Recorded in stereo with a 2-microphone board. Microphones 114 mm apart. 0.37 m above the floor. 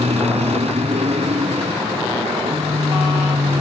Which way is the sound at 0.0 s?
65° right (ahead or behind).